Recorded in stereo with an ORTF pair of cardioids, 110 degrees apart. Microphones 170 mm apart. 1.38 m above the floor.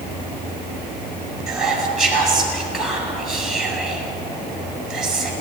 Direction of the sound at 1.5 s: 5° right.